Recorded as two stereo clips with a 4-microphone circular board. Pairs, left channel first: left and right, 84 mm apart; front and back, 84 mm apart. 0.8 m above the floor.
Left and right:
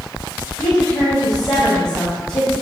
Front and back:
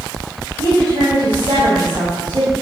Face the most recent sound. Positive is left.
turn(degrees=150)